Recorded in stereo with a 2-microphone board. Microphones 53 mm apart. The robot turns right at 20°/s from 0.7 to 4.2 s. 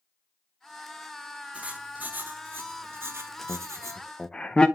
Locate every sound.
1.5 s writing: 150° right, 1.3 m; by 4.0 s 105° right, 1.3 m
3.5 s laughter: 30° left (ahead or behind), 0.5 m; by 4.7 s 20° left (ahead or behind), 0.5 m